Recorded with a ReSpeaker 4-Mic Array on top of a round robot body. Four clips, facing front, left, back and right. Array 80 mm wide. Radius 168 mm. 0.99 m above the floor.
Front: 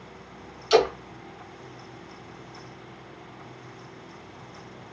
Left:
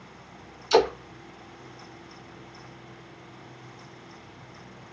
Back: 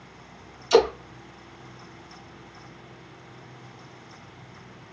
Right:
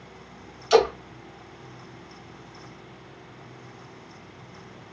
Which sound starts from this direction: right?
A splash, at 0.7 s.